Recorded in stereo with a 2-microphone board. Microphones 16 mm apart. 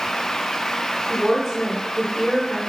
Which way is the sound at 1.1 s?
35° left (ahead or behind).